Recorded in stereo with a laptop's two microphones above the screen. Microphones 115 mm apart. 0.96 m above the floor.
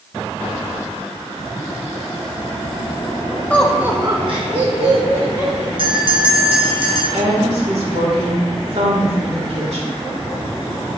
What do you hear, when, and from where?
3.5 s laughter: 15° left (ahead or behind), 0.9 m; by 5.7 s 60° right (ahead or behind), 3 m
5.8 s a bell: 50° right (ahead or behind), 1.1 m
7.1 s a woman speaking: 75° right (ahead or behind), 2.5 m